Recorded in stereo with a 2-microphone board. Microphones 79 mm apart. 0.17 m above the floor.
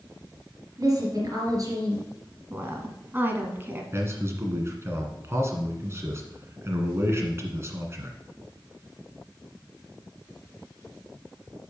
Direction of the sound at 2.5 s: 25° right (ahead or behind).